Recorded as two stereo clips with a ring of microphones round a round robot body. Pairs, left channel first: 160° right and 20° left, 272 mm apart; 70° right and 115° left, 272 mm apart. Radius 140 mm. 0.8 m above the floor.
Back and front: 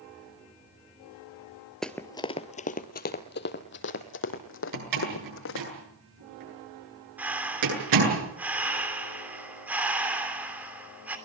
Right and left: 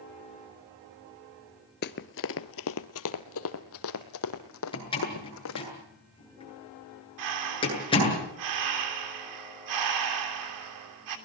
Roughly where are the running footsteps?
Right.